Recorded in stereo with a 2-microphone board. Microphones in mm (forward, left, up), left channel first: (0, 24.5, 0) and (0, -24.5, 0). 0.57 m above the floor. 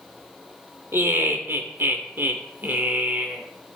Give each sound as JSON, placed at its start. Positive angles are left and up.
{"t": 0.9, "sound": "laughter", "side_deg": -55, "distance_m": 2.5}